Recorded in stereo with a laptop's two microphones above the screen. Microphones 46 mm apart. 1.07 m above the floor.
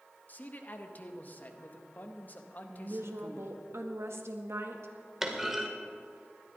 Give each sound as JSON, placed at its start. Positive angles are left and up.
{"t": 0.3, "sound": "a man speaking", "side_deg": 40, "distance_m": 1.0}
{"t": 2.7, "sound": "a woman speaking", "side_deg": -75, "distance_m": 1.7}
{"t": 5.2, "sound": "a clunk", "side_deg": -10, "distance_m": 1.8}